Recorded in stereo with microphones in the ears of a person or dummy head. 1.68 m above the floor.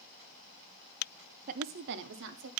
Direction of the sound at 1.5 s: 45° right (ahead or behind).